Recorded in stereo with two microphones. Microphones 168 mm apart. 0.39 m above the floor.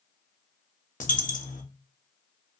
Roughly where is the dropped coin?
Left.